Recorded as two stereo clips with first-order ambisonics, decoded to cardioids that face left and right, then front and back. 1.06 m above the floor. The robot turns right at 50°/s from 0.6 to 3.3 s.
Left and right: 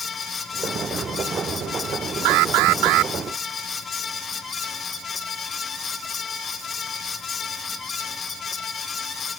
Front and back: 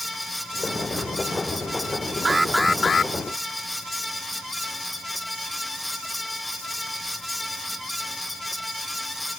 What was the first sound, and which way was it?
An alarm, 105° right.